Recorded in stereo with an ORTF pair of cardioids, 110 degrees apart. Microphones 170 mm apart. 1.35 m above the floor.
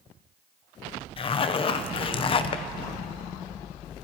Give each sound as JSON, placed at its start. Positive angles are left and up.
{"t": 1.2, "sound": "a zipper", "azimuth_deg": 30, "distance_m": 0.7}